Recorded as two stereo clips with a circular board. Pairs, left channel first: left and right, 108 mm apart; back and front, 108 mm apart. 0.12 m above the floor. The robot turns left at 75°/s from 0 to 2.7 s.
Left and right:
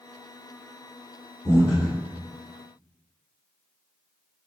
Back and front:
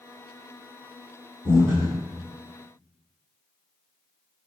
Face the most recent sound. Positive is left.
turn(degrees=70)